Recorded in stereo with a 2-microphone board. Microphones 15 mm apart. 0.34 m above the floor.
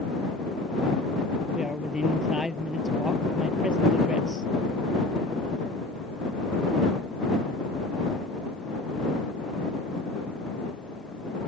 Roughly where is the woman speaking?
Right.